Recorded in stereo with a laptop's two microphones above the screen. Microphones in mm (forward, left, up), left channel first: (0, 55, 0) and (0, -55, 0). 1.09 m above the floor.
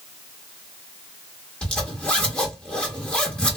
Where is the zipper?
10° left (ahead or behind), 1.2 m.